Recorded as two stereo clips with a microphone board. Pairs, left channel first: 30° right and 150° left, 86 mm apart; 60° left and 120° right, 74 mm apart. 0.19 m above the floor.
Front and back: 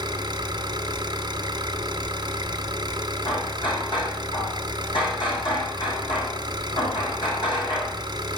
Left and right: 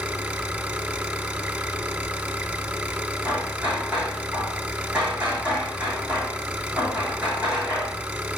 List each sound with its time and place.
0.0 s an engine running: 175° left, 2.5 m
3.2 s hammering: 50° right, 6.5 m